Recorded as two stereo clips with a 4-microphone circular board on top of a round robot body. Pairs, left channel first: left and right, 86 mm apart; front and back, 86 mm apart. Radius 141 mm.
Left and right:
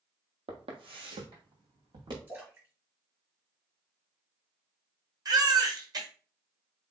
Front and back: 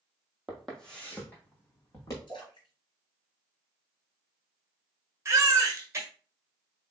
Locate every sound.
0.5 s footsteps: 90° right, 1.0 m; by 2.2 s 55° right, 2 m
2.3 s a splash: 25° right, 2.5 m
5.2 s a baby crying: 125° right, 1.3 m